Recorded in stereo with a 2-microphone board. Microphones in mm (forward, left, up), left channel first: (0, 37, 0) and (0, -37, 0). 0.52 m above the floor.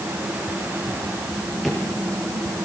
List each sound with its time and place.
1.6 s a drawer: centre (ahead or behind), 7.5 m